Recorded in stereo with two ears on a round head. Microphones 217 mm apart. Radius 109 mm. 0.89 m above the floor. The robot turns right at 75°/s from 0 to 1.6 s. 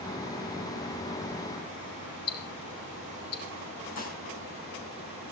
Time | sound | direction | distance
2.3 | ticking | 65° left (ahead or behind) | 4 m
4.0 | dishes clattering | 35° left (ahead or behind) | 6.5 m